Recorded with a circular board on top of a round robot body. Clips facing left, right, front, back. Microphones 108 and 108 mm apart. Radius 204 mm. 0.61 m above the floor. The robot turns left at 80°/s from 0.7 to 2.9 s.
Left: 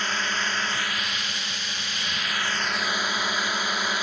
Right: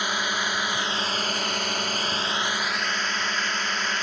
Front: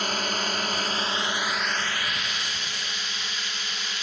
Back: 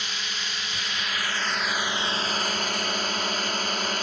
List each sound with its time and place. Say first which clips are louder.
0.0 s a drone: right 1 dB, front 8 dB; 15° right; by 4.0 s 165° left